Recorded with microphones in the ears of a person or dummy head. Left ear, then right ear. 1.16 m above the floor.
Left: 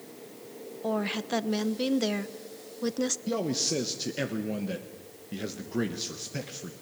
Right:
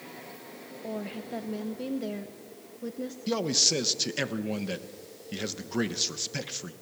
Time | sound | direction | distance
0.8 | a woman speaking | 40° left (ahead or behind) | 0.8 m
3.3 | a man speaking | 30° right (ahead or behind) | 1.2 m